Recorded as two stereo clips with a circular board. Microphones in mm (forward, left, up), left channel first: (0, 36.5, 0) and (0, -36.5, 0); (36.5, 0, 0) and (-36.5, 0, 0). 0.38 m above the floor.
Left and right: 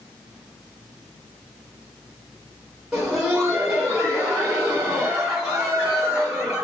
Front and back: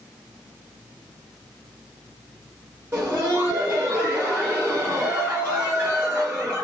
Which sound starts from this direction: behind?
Laughter, at 2.9 s.